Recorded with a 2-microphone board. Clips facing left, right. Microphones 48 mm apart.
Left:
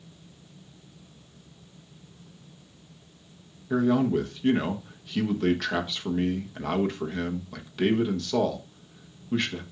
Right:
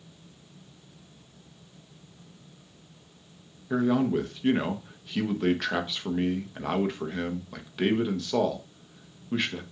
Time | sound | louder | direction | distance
3.7 | a man speaking | left 1 dB | 10° right (ahead or behind) | 1.0 m